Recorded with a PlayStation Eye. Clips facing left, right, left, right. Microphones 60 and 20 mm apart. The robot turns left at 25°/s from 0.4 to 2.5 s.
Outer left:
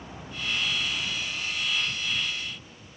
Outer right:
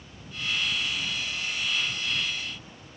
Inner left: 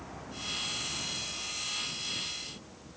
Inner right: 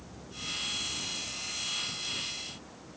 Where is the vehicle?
60° left (ahead or behind); by 3.0 s 35° right (ahead or behind).